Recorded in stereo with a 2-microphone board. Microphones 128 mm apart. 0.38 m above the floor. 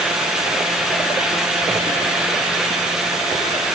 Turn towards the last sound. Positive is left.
No sound to turn to.